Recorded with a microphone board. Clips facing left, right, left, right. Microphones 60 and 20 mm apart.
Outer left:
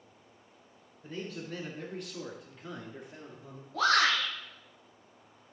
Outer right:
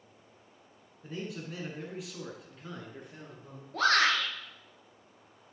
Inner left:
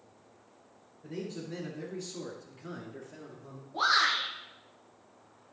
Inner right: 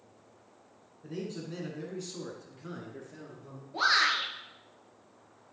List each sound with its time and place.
1.0 s a man speaking: 15° right (ahead or behind), 1.8 m; by 3.6 s 5° left (ahead or behind), 3 m
3.7 s a shout: 55° right (ahead or behind), 2.5 m